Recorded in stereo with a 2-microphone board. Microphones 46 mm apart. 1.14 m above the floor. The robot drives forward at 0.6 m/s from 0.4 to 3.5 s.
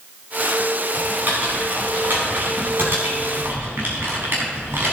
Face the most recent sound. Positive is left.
turn(degrees=-55)  # may be behind; listen again after turning